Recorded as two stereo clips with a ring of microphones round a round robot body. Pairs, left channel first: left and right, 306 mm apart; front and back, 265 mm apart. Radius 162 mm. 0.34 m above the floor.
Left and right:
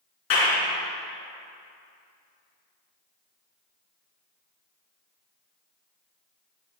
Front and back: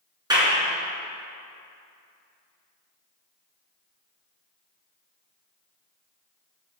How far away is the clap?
About 3.5 m.